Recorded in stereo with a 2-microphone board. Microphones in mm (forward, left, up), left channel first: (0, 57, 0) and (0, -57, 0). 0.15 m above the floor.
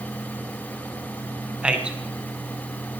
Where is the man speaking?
10° right (ahead or behind), 1.1 m.